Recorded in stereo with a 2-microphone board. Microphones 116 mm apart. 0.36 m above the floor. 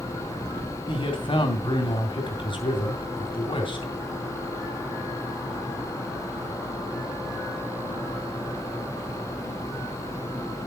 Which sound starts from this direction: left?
A man speaking, at 0.9 s.